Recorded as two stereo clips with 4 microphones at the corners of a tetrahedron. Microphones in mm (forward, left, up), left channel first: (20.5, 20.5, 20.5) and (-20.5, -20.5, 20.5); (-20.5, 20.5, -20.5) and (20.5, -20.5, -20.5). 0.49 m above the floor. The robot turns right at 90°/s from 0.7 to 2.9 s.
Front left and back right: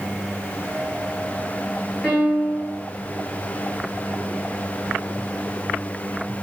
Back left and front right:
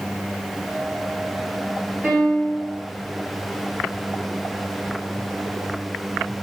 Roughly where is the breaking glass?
I don't hear breaking glass.